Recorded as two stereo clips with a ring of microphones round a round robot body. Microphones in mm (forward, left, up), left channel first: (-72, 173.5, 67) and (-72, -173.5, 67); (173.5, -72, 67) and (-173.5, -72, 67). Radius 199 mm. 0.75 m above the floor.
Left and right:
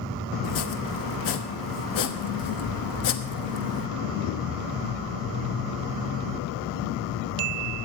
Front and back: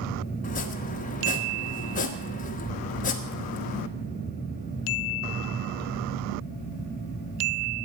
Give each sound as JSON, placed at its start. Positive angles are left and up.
{"t": 0.4, "sound": "chopping", "azimuth_deg": 65, "distance_m": 1.2}